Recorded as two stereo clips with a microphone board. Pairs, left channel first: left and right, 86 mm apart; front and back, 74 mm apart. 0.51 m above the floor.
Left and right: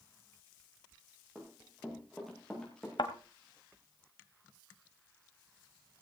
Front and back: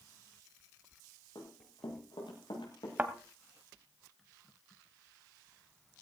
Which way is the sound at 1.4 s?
10° right.